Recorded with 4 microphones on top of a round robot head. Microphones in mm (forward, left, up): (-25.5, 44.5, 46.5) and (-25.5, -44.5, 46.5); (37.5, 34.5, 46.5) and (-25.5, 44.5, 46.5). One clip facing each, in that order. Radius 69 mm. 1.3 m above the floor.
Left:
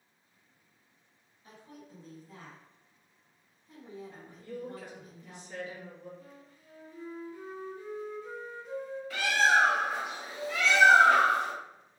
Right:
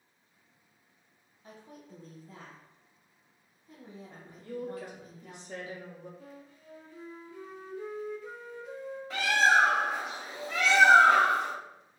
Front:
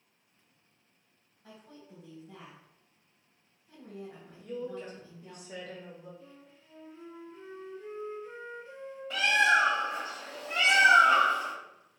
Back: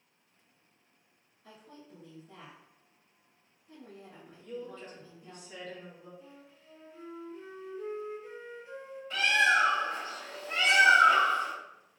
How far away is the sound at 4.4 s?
About 1.1 m.